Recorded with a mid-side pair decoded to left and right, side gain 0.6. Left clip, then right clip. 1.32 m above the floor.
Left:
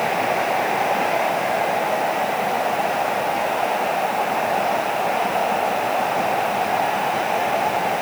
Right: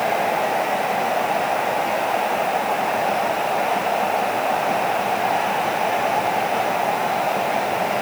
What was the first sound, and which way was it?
Only background noise.